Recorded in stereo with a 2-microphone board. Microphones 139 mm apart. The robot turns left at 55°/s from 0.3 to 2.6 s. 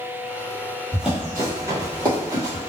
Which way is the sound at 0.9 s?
Centre (ahead or behind).